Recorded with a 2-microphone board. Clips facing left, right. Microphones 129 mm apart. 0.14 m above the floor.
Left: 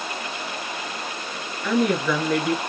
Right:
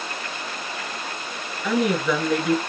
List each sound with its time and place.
1.6 s a woman speaking: 10° right (ahead or behind), 1.2 m